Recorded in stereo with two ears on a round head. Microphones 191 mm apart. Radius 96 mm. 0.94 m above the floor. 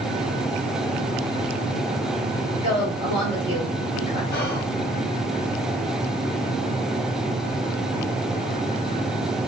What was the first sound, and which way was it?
A woman speaking, 70° left (ahead or behind).